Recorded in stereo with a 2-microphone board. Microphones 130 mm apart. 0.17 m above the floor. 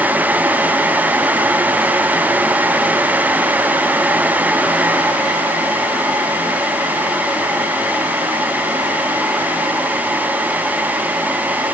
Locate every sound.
Only background noise.